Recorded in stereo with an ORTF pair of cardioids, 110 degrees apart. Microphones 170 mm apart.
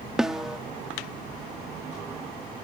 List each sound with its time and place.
0.2 s a snare drum: 5° right, 0.7 m